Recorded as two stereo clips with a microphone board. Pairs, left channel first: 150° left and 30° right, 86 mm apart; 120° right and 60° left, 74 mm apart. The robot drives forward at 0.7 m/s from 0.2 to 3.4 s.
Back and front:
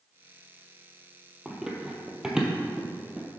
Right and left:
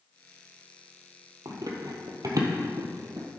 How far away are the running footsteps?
About 1.0 m.